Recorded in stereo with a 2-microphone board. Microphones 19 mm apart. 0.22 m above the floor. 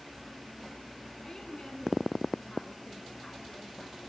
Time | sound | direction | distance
1.2 | a woman speaking | 20° left (ahead or behind) | 2.5 m